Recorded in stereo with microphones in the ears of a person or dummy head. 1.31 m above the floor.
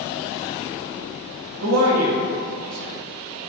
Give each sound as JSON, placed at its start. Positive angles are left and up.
{"t": 1.6, "sound": "a man speaking", "side_deg": -75, "distance_m": 0.7}